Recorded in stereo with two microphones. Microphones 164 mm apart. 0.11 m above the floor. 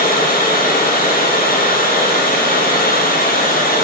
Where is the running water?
60° left (ahead or behind), 2.5 m.